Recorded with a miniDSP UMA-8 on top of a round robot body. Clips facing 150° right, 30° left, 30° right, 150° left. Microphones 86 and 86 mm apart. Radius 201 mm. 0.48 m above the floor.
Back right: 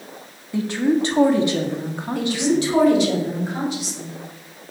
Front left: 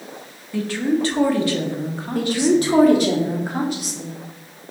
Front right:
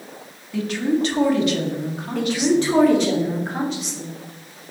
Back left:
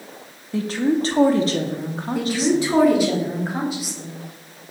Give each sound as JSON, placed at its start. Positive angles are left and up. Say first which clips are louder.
{"t": 0.5, "sound": "a woman speaking", "louder": "back right 1 dB, back left 1 dB", "azimuth_deg": 155, "distance_m": 1.4}
{"t": 2.1, "sound": "a woman speaking", "louder": "front left 3 dB, front right 1 dB", "azimuth_deg": 70, "distance_m": 2.0}